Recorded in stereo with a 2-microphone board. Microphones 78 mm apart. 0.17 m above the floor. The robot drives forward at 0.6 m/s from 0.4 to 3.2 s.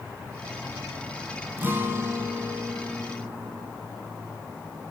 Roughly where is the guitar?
Right.